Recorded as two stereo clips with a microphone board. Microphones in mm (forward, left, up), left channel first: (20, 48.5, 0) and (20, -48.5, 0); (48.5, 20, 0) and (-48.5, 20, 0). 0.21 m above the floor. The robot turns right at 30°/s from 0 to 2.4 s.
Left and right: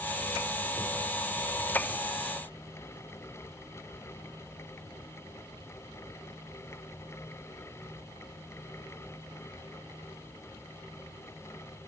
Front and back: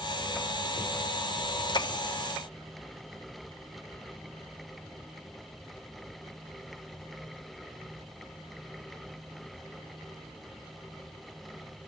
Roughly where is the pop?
I don't hear a pop.